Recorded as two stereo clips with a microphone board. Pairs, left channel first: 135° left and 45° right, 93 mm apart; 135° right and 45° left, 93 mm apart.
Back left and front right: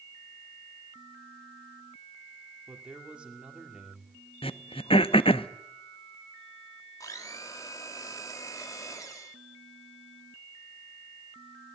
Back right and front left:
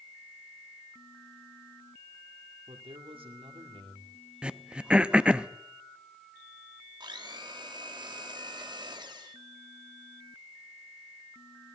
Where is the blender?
80° left, 1.7 m.